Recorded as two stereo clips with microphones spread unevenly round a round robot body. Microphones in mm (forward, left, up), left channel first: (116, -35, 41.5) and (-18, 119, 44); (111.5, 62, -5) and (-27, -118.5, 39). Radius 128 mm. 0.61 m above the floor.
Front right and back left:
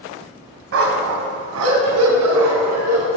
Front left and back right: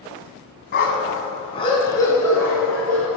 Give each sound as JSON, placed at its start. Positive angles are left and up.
{"t": 0.7, "sound": "a dog barking", "azimuth_deg": 110, "distance_m": 1.1}